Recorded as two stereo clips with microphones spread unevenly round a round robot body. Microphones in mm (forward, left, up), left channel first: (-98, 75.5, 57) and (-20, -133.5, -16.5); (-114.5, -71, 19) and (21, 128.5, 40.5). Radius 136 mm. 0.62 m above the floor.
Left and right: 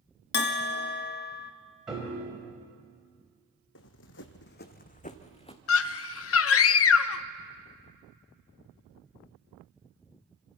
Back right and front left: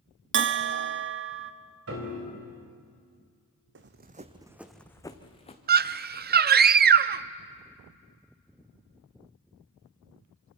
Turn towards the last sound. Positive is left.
turn(degrees=90)